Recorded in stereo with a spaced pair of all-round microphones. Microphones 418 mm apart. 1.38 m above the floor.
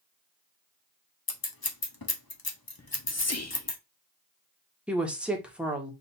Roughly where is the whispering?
Left.